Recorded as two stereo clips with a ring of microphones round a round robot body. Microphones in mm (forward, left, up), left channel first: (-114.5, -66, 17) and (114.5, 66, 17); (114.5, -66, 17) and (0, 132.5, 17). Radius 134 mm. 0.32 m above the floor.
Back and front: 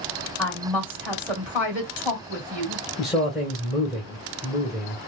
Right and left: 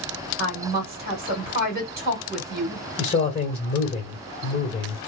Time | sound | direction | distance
0.4 | a woman speaking | 110° left | 1.6 m
3.0 | a man speaking | 60° right | 1.6 m